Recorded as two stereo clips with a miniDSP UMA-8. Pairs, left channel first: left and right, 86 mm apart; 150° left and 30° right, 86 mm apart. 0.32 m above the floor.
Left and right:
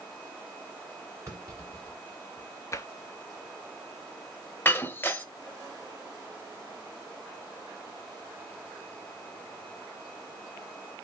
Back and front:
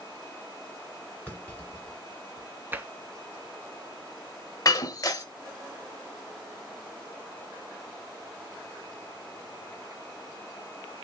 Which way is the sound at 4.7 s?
145° left.